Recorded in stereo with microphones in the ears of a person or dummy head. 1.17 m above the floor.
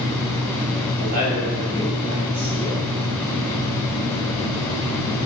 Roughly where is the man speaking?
Right.